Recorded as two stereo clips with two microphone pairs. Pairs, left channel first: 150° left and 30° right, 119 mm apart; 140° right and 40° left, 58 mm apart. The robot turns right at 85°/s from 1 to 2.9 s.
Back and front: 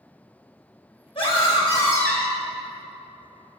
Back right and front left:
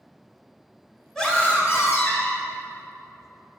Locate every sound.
1.1 s a scream: 140° left, 1.6 m; by 2.4 s 110° right, 1.6 m